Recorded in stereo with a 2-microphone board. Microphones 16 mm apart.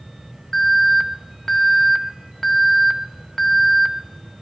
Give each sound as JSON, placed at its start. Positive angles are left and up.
{"t": 0.5, "sound": "an alarm", "side_deg": 30, "distance_m": 1.3}